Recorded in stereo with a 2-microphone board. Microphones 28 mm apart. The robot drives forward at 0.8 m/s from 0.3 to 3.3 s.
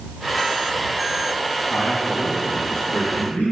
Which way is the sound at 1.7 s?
75° left (ahead or behind).